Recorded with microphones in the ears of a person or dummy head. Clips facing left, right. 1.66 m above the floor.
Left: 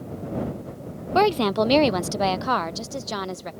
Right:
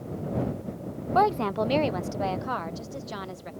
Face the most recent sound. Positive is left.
turn(degrees=60)  # may be behind; listen again after turning